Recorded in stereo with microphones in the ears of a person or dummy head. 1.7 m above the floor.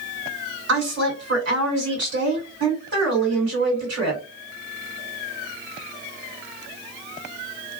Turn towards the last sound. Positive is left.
turn(degrees=-85)